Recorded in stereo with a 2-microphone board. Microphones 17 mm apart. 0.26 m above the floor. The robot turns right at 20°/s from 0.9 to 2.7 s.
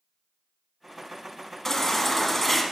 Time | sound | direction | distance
1.6 | a baby crying | 20° left (ahead or behind) | 1.5 m